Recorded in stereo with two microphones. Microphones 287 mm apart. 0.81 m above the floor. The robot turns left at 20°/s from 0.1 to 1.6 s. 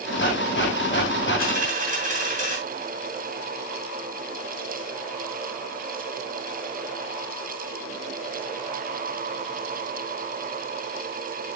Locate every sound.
1.4 s a dropped coin: 30° right (ahead or behind), 4 m